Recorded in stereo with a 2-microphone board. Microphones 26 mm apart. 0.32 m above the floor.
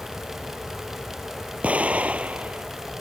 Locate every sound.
1.6 s an explosion: 65° right (ahead or behind)